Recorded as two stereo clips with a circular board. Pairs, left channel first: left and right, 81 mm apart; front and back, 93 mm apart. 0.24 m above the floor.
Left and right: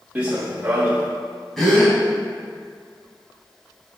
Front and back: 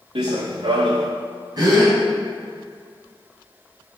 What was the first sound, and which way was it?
Running footsteps, 160° right.